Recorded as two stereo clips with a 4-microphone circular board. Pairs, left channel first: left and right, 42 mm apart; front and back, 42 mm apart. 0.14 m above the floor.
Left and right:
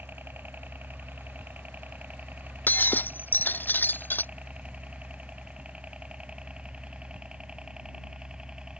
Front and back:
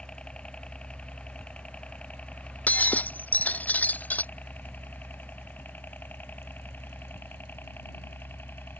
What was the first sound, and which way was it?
A helicopter, 60° right.